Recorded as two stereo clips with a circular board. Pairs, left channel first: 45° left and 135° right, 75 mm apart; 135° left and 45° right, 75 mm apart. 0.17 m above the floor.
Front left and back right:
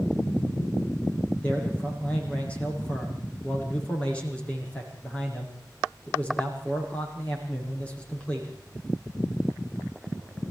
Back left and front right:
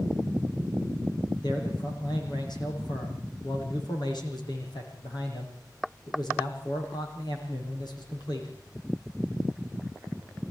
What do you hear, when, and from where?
1.4 s a man speaking: 120° left, 8.5 m